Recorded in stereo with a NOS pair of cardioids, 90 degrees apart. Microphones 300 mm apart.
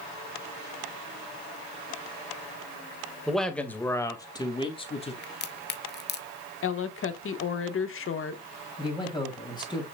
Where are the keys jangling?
No keys jangling in this recording.